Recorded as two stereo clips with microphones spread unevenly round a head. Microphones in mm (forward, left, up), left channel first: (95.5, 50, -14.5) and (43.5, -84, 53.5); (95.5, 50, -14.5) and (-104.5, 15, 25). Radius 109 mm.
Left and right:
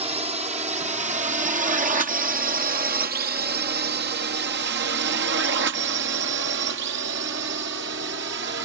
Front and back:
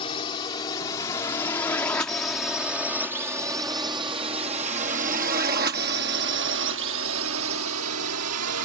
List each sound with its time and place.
0.0 s a drone: 55° right; by 8.7 s 150° right